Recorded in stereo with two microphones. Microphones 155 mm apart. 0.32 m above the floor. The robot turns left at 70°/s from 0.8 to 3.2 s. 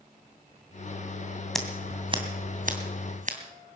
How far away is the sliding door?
I don't hear a sliding door.